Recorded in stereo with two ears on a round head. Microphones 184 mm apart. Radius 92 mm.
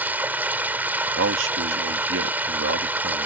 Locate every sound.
0.0 s running water: 10° right (ahead or behind)
1.1 s a man speaking: 65° right (ahead or behind)